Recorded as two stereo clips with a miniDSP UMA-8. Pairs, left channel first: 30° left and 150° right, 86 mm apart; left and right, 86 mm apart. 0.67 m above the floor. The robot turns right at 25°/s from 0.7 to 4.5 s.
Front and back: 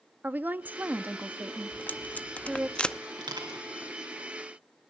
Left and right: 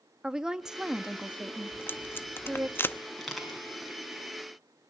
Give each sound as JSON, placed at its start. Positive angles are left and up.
{"t": 0.2, "sound": "a woman speaking", "azimuth_deg": -160, "distance_m": 0.6}
{"t": 1.7, "sound": "tape being pulled", "azimuth_deg": 65, "distance_m": 0.6}
{"t": 3.2, "sound": "crushing", "azimuth_deg": 175, "distance_m": 5.0}